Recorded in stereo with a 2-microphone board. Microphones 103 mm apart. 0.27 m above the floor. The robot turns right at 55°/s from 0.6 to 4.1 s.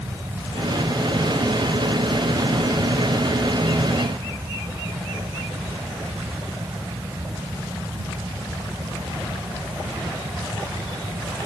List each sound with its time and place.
Only background noise.